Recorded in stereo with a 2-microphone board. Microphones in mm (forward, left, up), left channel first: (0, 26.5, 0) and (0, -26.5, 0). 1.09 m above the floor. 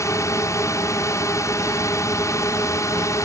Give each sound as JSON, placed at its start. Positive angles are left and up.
{"t": 0.0, "sound": "a drone", "side_deg": 65}